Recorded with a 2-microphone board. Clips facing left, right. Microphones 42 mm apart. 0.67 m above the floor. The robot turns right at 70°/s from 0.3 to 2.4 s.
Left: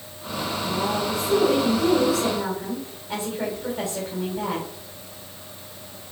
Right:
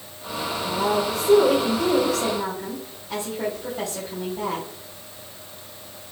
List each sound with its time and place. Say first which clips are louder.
0.6 s a woman speaking: right 3 dB; 115° right, 3 m; by 4.7 s 5° left, 3 m